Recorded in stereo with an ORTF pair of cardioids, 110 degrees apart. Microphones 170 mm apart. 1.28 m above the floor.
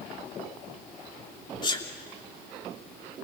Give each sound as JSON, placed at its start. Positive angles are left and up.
{"t": 1.6, "sound": "a sneeze", "azimuth_deg": 25, "distance_m": 3.0}